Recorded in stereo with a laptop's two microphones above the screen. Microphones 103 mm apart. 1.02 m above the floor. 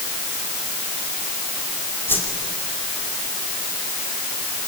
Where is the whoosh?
20° left (ahead or behind), 3 m.